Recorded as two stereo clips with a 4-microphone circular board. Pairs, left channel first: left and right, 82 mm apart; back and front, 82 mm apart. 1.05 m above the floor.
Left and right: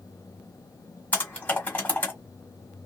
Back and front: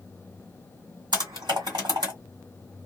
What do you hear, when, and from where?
1.1 s typing on a keyboard: 20° left, 1.5 m